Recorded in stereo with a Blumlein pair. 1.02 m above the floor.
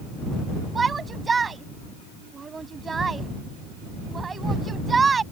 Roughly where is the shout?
Ahead.